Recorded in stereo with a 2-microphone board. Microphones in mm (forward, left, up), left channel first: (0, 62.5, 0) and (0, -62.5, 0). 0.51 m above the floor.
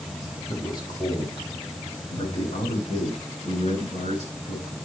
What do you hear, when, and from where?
0.5 s a man speaking: 30° left (ahead or behind), 6.5 m; by 4.8 s 75° left (ahead or behind), 8 m